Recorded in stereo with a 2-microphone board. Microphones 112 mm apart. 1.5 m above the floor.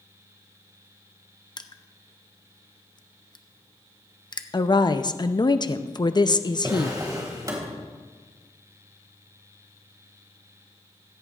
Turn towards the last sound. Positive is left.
turn(degrees=-30)  # may be behind; listen again after turning